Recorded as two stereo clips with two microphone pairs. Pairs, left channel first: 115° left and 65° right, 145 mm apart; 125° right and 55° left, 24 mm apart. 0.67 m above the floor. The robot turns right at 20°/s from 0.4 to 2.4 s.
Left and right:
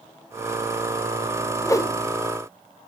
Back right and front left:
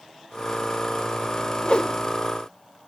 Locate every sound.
1.6 s a whoosh: straight behind, 0.7 m; by 1.9 s 175° right, 0.7 m